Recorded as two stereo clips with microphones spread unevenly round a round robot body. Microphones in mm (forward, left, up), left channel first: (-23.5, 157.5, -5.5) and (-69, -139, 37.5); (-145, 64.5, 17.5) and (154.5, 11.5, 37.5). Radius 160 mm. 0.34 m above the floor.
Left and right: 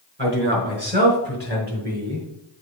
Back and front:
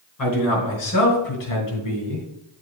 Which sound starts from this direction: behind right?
A man speaking, at 0.2 s.